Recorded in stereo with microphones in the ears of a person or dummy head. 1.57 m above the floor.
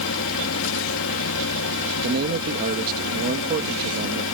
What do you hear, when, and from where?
0.0 s a fan: 70° left (ahead or behind)
2.0 s a man speaking: 55° right (ahead or behind)